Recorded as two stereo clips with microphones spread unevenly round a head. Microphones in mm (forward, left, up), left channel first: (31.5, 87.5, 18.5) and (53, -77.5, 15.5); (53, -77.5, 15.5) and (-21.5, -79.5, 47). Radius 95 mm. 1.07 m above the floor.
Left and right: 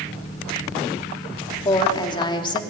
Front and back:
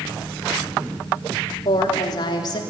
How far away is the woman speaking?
About 3 m.